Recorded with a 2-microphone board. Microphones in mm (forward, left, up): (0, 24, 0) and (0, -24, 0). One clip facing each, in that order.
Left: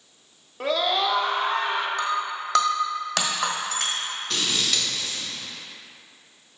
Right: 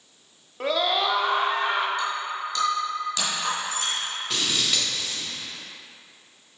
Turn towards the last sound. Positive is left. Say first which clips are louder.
# even
turn(degrees=-10)  # may be behind; listen again after turning